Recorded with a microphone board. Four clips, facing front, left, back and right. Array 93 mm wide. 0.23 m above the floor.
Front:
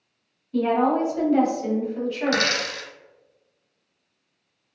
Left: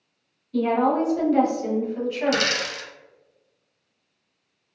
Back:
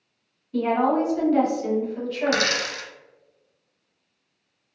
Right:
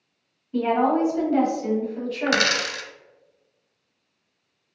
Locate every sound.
0.5 s a woman speaking: 85° right, 1.1 m; by 2.7 s 70° left, 1.2 m
2.3 s a dropped coin: 95° right, 0.6 m